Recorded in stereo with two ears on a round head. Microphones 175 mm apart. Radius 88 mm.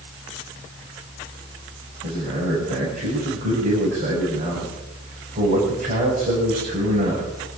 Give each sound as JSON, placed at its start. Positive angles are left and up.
{"t": 2.0, "sound": "a man speaking", "side_deg": -40, "distance_m": 6.0}